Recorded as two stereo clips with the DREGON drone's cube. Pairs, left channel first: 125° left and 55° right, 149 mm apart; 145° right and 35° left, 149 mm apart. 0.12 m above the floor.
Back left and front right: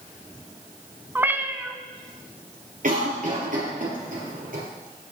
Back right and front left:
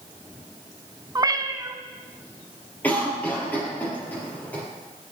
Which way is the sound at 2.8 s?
70° right.